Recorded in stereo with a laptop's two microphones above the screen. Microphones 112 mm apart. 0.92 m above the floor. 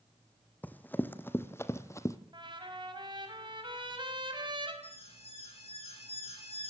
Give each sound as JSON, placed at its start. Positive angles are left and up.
{"t": 0.6, "sound": "running footsteps", "side_deg": 15, "distance_m": 1.7}
{"t": 2.3, "sound": "a trumpet", "side_deg": -45, "distance_m": 4.0}
{"t": 4.8, "sound": "an alarm", "side_deg": 60, "distance_m": 7.5}